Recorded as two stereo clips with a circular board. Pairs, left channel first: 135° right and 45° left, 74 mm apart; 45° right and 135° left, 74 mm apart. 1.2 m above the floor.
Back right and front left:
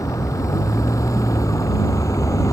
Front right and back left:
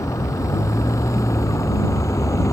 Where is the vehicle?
90° right.